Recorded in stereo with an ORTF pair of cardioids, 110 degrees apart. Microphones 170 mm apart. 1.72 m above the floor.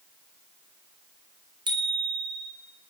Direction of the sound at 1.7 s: 30° right.